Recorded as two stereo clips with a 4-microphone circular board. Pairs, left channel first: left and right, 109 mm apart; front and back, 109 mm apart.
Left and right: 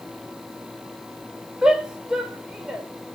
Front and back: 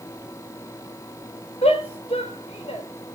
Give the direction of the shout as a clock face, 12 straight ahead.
12 o'clock.